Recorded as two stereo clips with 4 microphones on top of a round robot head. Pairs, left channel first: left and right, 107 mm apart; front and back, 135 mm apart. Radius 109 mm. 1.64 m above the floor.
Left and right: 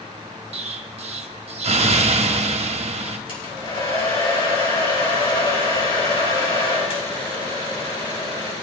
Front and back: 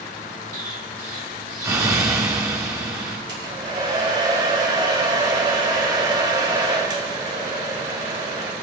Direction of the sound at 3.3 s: 120° left.